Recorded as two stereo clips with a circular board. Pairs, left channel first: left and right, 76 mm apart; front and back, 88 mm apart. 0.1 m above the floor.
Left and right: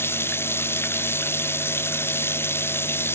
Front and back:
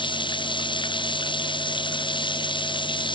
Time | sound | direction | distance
0.0 | running water | 30° left | ?